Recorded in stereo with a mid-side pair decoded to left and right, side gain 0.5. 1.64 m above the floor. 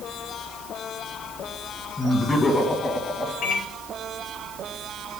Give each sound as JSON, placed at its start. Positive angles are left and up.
{"t": 2.0, "sound": "laughter", "azimuth_deg": 15, "distance_m": 2.0}
{"t": 3.4, "sound": "a microwave", "azimuth_deg": 65, "distance_m": 1.7}